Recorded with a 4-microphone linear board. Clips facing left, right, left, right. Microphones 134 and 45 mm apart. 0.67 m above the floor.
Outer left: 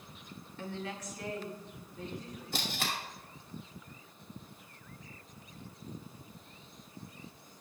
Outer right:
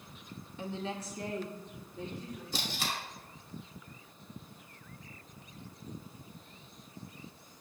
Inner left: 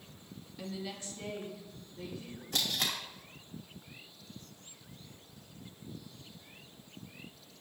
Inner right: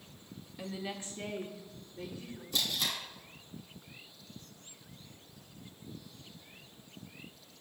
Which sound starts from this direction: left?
Tape being pulled, at 2.5 s.